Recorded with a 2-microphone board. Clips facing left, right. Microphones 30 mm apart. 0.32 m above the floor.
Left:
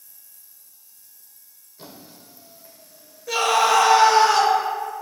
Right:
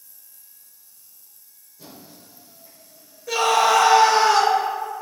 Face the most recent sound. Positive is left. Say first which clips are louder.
# right 1 dB
turn(degrees=0)  # may be behind; listen again after turning